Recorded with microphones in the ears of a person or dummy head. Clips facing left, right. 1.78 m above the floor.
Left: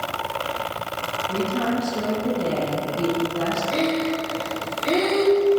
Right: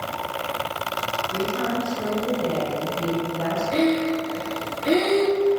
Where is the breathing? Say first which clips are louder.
Right 4 dB; 15° right (ahead or behind), 3 m.